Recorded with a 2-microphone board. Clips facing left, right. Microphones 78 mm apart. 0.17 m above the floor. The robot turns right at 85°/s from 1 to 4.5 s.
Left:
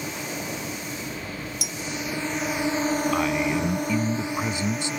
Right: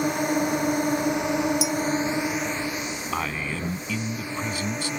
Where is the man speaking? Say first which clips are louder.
Left 6 dB; 5° right (ahead or behind); by 4.9 s 25° left (ahead or behind).